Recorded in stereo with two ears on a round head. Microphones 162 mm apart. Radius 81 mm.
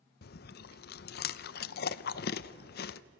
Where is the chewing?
55° left (ahead or behind), 0.6 m.